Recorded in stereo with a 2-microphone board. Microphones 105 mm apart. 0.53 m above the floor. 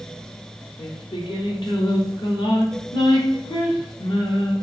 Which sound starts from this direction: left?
Singing, at 0.8 s.